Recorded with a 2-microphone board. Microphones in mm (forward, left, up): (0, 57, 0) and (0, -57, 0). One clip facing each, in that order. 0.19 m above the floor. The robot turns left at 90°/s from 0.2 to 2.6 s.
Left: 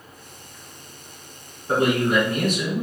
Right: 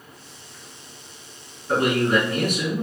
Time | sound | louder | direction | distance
1.7 | a man speaking | even | 50° left | 1.2 m